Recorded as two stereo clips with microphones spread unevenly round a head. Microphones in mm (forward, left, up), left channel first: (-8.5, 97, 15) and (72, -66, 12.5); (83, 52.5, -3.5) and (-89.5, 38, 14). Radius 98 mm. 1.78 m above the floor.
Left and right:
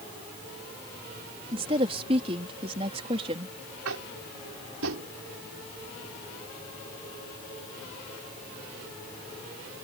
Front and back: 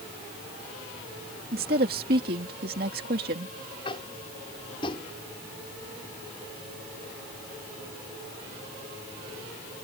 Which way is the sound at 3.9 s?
65° right.